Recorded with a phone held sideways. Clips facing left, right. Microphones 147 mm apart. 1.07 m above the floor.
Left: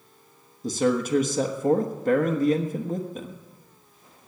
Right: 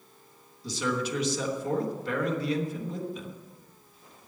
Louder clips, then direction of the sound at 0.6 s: Left 7 dB; 45° left (ahead or behind).